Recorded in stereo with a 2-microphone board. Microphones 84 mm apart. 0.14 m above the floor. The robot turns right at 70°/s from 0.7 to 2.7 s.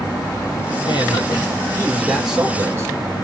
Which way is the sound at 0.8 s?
85° left.